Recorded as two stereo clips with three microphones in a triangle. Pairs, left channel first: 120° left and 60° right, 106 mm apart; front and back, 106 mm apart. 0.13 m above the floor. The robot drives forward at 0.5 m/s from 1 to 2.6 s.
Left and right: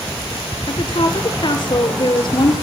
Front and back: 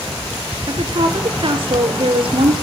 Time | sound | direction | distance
0.7 | a woman speaking | 155° left | 2.5 m